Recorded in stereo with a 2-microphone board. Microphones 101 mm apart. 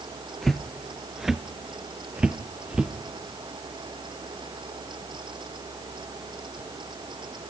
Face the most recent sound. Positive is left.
turn(degrees=-10)  # may be behind; listen again after turning